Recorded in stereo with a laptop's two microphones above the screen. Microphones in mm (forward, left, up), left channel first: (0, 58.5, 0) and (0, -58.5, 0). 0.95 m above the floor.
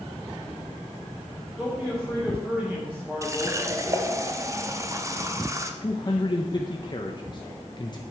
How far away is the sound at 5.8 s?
About 0.7 m.